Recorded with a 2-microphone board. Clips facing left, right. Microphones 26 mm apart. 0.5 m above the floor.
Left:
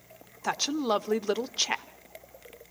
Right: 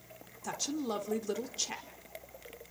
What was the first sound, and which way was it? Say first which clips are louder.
A woman speaking: left 8 dB; 40° left (ahead or behind).